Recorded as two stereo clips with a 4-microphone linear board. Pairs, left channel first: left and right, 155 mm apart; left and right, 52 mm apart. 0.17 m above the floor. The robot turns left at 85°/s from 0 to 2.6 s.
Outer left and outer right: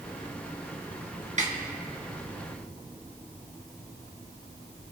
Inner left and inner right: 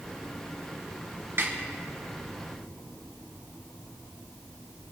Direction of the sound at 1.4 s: 50° right (ahead or behind).